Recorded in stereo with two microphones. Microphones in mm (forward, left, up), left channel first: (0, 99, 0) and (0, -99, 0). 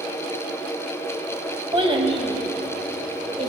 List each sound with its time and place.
1.7 s a child speaking: 25° right (ahead or behind), 1.2 m; by 3.5 s 30° right (ahead or behind), 2.5 m